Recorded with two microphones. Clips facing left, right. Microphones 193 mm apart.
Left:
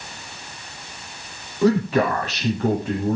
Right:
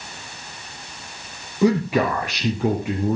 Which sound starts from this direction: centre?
A man speaking, at 1.6 s.